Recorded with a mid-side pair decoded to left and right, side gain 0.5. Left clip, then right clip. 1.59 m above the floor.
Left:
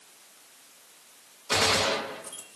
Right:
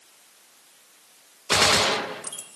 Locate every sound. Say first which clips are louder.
1.5 s a gunshot: right 4 dB; 40° right, 0.5 m